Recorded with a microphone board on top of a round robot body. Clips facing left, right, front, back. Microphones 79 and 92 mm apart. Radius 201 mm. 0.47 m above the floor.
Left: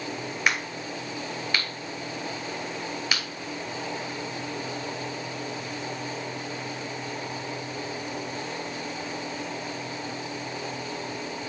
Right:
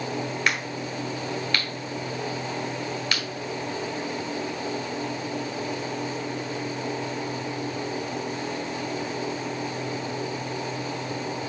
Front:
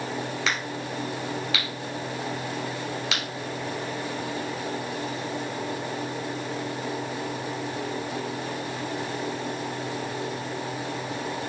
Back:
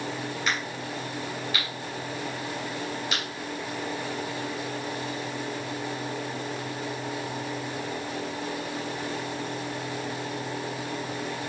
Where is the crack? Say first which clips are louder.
Right 1 dB, front 1 dB; 10° left, 2 m.